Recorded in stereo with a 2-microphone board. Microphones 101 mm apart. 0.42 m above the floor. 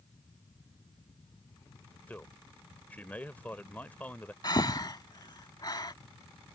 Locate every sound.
2.1 s a man speaking: 15° left (ahead or behind)
4.4 s breathing: 45° left (ahead or behind)